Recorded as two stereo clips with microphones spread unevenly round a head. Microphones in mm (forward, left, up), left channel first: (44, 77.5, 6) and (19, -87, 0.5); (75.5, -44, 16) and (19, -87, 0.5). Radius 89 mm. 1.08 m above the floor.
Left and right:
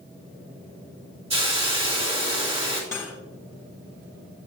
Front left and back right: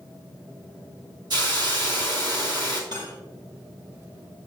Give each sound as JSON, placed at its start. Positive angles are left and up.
{"t": 1.3, "sound": "a hiss", "azimuth_deg": -160, "distance_m": 1.5}
{"t": 2.9, "sound": "cutlery clinking", "azimuth_deg": 155, "distance_m": 0.8}